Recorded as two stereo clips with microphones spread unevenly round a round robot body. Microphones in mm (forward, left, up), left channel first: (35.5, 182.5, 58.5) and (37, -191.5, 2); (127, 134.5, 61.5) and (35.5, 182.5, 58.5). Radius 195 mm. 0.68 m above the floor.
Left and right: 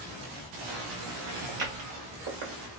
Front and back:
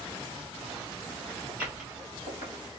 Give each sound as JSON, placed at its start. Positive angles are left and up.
{"t": 1.5, "sound": "footsteps", "azimuth_deg": -75, "distance_m": 2.0}